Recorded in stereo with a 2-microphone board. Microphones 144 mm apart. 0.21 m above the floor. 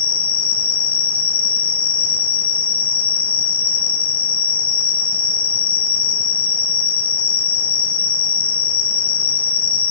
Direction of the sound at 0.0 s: 40° left (ahead or behind).